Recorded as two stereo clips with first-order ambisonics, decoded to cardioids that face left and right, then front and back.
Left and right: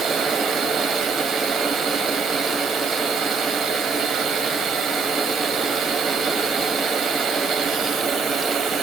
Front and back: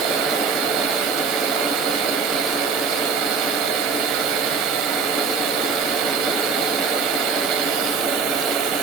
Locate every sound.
0.0 s running water: 160° right, 2.5 m